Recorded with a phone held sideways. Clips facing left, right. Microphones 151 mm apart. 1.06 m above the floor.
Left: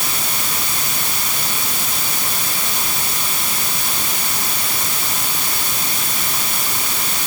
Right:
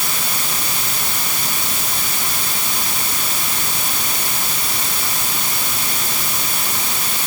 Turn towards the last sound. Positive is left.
No sound to turn to.